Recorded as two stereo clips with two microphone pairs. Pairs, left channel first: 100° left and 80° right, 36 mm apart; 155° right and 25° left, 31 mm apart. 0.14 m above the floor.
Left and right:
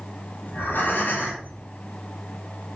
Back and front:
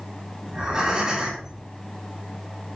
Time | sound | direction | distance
0.5 | breathing | 90° left | 5 m